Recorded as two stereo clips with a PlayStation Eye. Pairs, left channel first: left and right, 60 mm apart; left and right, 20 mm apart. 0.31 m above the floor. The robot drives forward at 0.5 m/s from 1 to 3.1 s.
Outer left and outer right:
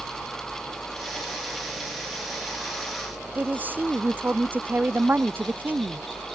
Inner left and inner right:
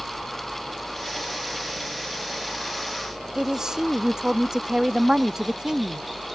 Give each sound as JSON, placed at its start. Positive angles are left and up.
{"t": 0.0, "sound": "a helicopter", "side_deg": 20}
{"t": 3.4, "sound": "a man speaking", "side_deg": -30}